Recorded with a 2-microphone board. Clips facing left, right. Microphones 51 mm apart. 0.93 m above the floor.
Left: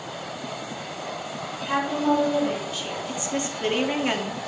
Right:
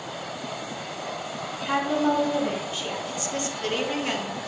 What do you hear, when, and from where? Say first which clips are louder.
1.6 s a woman speaking: even; 30° right (ahead or behind), 5 m
3.1 s a woman speaking: left 2 dB; 25° left (ahead or behind), 1.5 m